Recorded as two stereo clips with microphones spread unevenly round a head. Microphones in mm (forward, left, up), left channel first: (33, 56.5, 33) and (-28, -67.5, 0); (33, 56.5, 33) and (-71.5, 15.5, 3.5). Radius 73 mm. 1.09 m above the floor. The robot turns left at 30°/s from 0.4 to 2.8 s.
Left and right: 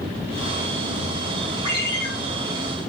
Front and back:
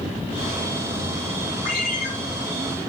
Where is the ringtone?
60° right, 2 m; by 2.1 s 75° right, 2 m.